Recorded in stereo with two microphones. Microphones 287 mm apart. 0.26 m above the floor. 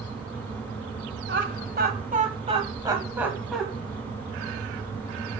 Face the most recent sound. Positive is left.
turn(degrees=0)  # may be behind; listen again after turning